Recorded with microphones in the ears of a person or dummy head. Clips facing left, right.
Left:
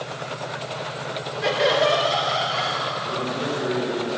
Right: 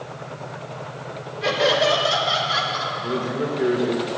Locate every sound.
1.4 s laughter: 5° left (ahead or behind), 2.5 m; by 3.2 s 20° right (ahead or behind), 5 m
3.0 s a man speaking: 80° right, 2 m